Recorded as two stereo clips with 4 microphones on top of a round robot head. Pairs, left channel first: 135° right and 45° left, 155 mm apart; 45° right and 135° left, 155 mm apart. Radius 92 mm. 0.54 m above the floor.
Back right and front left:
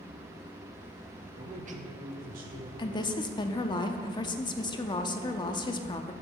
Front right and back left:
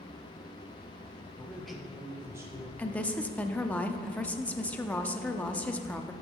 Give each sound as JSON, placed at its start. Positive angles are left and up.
{"t": 1.4, "sound": "a man speaking", "azimuth_deg": 25, "distance_m": 0.7}
{"t": 2.8, "sound": "a woman speaking", "azimuth_deg": -115, "distance_m": 0.6}